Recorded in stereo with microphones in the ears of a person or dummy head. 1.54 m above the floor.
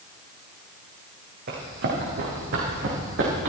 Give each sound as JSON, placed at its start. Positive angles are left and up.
{"t": 1.5, "sound": "running footsteps", "side_deg": -55, "distance_m": 4.0}